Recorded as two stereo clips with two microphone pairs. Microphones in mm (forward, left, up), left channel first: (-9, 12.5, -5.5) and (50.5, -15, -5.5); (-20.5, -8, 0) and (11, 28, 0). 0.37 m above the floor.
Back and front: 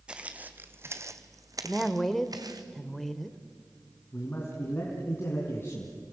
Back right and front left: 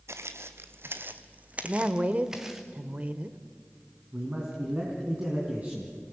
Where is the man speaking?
100° left, 3.5 m.